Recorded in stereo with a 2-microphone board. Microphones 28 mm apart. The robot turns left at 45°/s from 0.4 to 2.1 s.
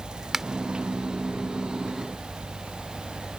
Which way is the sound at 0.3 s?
15° right (ahead or behind).